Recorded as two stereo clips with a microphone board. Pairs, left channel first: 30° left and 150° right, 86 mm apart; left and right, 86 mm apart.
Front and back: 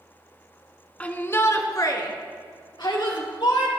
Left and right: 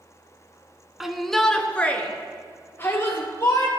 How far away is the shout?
About 1.1 m.